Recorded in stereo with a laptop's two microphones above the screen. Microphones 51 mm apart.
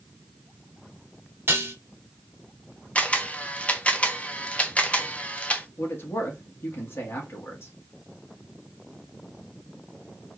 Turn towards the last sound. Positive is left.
turn(degrees=50)  # may be behind; listen again after turning